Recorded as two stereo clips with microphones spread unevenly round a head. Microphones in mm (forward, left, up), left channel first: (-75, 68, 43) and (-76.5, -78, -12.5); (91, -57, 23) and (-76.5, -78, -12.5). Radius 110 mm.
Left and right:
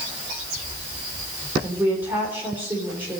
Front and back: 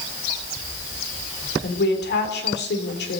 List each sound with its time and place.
1.6 s a woman speaking: 10° right, 4 m